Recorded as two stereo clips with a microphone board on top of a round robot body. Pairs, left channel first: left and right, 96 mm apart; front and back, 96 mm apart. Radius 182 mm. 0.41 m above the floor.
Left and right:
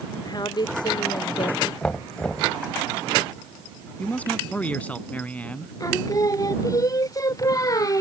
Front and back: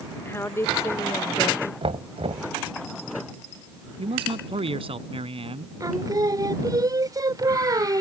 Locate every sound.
0.2 s a woman speaking: 60° left
1.8 s knocking: 170° left
4.0 s a man speaking: 165° left
5.8 s singing: 135° left